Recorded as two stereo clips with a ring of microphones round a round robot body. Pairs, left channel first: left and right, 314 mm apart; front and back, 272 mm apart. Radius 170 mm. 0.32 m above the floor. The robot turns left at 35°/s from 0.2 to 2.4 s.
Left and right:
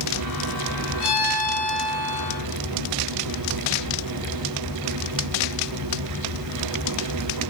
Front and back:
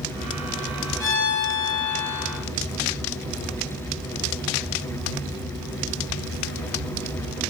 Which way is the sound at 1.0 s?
60° left.